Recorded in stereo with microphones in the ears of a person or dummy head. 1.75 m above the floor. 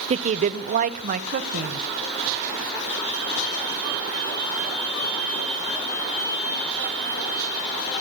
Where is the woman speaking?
40° right (ahead or behind), 0.7 m; by 1.8 s 55° right (ahead or behind), 1.6 m.